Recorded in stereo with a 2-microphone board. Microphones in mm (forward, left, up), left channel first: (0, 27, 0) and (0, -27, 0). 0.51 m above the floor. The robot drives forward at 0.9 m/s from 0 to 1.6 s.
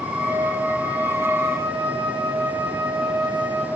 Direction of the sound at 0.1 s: 55° right (ahead or behind).